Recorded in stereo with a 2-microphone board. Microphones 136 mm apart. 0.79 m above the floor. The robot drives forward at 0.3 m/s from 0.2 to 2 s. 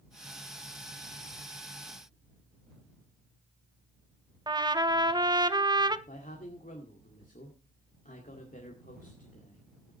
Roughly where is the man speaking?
Left.